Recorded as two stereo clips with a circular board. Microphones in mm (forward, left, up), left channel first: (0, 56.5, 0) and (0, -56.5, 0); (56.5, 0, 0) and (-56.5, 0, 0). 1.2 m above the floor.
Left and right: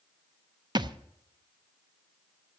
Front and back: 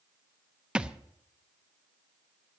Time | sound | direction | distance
0.8 | a thud | 100° right | 0.6 m